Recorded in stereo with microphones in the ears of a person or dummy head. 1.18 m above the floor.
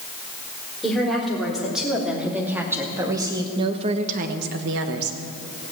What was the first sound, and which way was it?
A woman speaking, 5° left (ahead or behind).